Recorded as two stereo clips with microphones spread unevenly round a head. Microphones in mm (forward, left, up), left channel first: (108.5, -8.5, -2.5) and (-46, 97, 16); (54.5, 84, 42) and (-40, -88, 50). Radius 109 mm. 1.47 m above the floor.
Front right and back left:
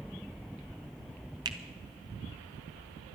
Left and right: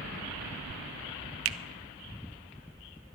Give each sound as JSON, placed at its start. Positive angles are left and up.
{"t": 1.4, "sound": "a finger snap", "azimuth_deg": -140, "distance_m": 0.5}